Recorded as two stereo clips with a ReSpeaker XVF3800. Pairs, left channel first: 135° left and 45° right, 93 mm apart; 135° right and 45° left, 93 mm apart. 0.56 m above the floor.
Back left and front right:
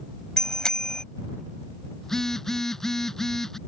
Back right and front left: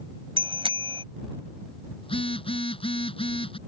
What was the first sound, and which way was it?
A bicycle bell, 50° left.